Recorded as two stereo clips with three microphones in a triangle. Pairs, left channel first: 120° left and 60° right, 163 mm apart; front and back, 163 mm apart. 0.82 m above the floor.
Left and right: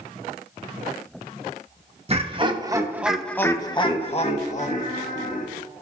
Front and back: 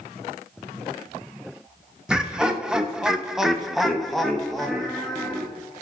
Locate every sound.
2.1 s laughter: 95° right, 1.3 m; by 5.5 s 90° left, 2 m